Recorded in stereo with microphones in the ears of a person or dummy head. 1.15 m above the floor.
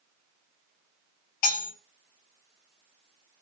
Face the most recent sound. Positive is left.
turn(degrees=50)  # may be behind; listen again after turning